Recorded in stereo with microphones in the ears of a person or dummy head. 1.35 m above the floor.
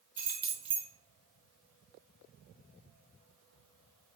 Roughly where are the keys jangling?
Centre.